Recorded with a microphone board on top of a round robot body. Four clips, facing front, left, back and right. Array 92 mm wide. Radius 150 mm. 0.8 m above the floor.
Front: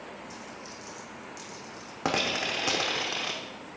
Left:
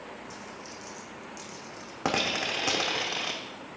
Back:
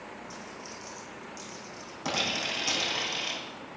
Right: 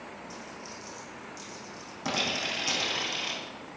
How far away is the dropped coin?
About 0.9 m.